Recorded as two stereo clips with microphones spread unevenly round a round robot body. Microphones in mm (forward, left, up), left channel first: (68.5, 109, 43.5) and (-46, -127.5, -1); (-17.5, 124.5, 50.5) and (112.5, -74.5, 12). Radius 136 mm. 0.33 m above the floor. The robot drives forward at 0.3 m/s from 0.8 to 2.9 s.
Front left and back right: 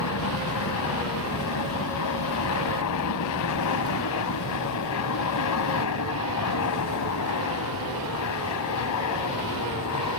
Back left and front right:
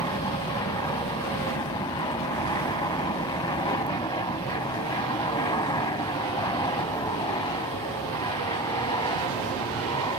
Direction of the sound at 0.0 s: 50° left.